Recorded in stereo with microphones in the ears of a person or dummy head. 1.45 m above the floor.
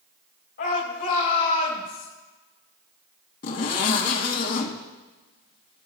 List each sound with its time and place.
0.6 s a shout: 55° left (ahead or behind), 3.5 m; by 2.1 s 45° left (ahead or behind), 4 m
3.4 s a zipper: 50° left (ahead or behind), 2 m